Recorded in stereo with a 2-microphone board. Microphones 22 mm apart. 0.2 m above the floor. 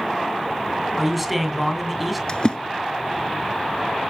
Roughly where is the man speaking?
Centre.